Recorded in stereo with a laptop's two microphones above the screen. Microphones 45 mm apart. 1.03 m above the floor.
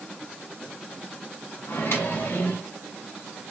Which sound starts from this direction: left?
A microwave, at 1.7 s.